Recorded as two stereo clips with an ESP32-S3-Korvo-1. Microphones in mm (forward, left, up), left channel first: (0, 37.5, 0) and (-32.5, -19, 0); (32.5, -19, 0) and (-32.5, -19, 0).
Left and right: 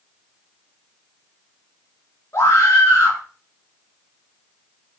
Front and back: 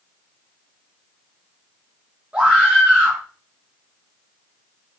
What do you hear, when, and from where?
2.3 s a scream: 105° left, 4 m